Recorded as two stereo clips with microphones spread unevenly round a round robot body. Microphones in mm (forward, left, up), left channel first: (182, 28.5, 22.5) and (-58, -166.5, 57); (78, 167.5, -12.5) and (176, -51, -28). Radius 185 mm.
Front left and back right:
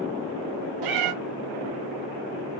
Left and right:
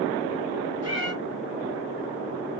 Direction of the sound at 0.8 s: 145° right.